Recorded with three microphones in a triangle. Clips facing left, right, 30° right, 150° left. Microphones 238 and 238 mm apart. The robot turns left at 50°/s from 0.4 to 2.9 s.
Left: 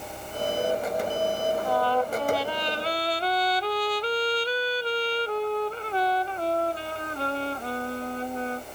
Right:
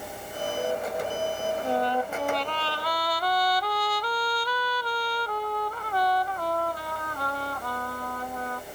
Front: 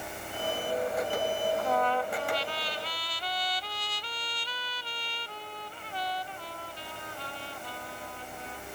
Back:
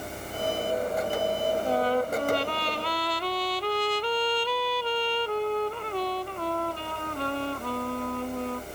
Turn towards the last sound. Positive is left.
turn(degrees=150)